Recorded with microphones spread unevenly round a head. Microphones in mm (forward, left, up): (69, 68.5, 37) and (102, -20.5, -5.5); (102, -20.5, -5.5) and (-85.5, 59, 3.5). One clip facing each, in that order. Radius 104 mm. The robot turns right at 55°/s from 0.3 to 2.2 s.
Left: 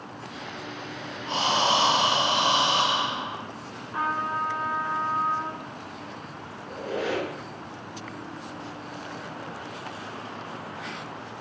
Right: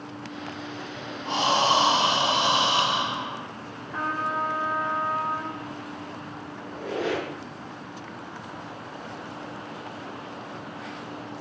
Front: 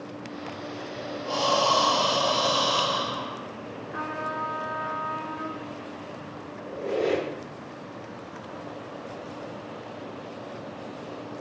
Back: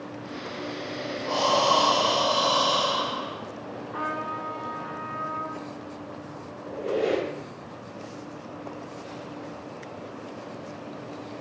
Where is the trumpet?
80° right, 1.7 m.